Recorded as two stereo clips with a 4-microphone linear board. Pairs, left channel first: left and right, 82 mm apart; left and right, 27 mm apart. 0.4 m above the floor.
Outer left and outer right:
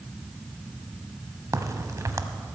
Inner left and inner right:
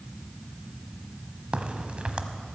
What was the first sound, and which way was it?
A crack, 45° right (ahead or behind).